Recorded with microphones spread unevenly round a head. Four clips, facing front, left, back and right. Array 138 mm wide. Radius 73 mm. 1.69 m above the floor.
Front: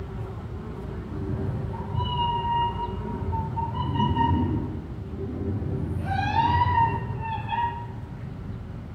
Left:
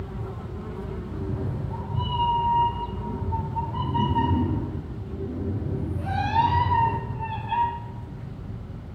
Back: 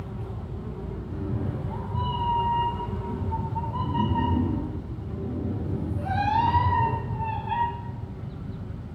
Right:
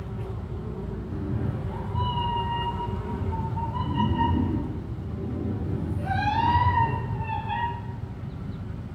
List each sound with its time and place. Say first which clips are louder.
1.1 s a cat meowing: right 1 dB, even; 150° left, 3 m